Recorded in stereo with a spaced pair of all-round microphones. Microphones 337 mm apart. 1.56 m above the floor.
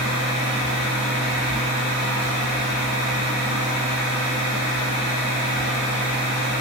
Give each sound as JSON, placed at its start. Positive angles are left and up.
{"t": 0.0, "sound": "a machine running", "side_deg": 50, "distance_m": 1.1}